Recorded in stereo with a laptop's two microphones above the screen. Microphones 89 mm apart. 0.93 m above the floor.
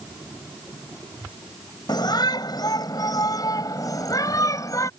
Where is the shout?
55° left (ahead or behind); by 4.9 s 40° left (ahead or behind).